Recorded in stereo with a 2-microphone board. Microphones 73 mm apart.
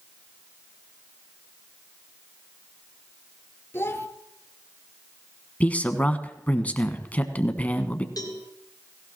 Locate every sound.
3.7 s a child speaking: 30° left (ahead or behind), 1.6 m
5.6 s a man speaking: 20° left (ahead or behind), 1.2 m
8.2 s a cowbell: 55° left (ahead or behind), 2.5 m